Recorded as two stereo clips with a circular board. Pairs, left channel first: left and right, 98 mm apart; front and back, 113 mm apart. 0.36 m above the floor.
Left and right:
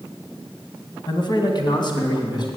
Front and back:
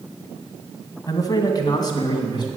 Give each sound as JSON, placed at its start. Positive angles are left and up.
{"t": 1.1, "sound": "a man speaking", "azimuth_deg": 55, "distance_m": 2.0}